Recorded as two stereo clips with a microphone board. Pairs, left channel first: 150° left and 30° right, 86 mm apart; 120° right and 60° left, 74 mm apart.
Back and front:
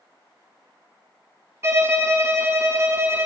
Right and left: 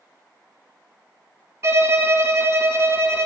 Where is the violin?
20° left, 0.5 m.